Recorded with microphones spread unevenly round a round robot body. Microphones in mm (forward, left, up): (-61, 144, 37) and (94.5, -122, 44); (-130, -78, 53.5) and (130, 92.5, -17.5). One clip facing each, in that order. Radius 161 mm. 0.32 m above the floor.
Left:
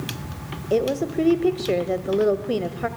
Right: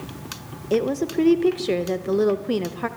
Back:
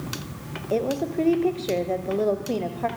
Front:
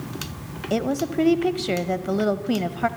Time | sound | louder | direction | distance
0.7 | a woman speaking | even, front 1 dB | 15° left | 1.3 m